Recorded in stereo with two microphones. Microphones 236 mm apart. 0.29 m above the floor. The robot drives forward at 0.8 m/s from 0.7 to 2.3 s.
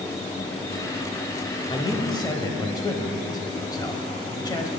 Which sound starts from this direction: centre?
A man speaking, at 1.7 s.